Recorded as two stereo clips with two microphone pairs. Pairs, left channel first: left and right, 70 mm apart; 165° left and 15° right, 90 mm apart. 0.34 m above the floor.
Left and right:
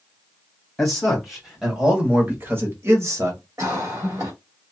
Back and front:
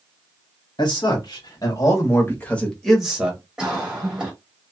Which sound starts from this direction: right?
A cough, at 3.6 s.